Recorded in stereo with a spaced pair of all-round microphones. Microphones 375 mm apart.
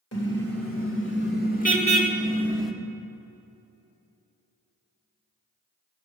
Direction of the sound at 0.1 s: 40° left (ahead or behind).